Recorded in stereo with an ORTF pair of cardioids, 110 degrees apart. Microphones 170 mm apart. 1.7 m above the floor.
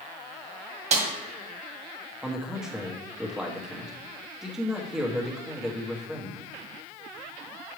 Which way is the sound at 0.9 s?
40° right.